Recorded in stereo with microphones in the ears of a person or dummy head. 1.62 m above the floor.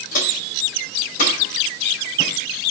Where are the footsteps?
55° left (ahead or behind), 4.5 m; by 2.7 s 40° left (ahead or behind), 5.5 m.